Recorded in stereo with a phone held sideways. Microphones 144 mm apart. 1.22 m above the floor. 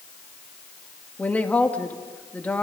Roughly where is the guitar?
I don't hear a guitar.